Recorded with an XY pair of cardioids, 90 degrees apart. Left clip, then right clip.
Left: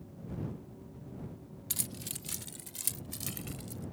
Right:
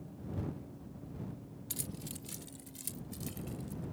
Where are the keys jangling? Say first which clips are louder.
Left 5 dB; 50° left; by 3.8 s 70° left.